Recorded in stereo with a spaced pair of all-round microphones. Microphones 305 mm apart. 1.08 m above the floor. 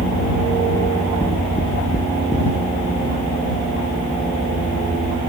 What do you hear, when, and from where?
0.8 s knocking: 20° left (ahead or behind)